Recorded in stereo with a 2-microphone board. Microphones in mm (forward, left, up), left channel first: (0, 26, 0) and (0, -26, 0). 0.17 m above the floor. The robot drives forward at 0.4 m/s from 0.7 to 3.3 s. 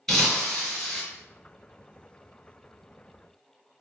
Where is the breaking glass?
5° left (ahead or behind), 1.7 m.